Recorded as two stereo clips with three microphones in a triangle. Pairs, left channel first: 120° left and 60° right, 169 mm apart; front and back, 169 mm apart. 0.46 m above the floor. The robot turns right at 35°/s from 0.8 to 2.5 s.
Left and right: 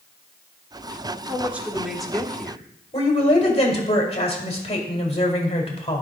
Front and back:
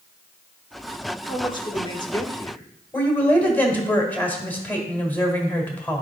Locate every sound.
1.3 s a man speaking: 5° left, 1.0 m; by 3.7 s 45° left, 1.0 m
2.9 s a woman speaking: 75° left, 1.8 m